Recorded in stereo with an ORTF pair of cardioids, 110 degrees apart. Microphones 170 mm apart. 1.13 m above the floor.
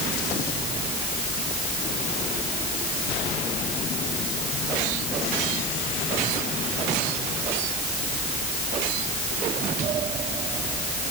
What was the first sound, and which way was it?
Only background noise.